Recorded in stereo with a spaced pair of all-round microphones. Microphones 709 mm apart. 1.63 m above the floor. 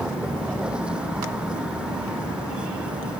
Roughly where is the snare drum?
No snare drum in this recording.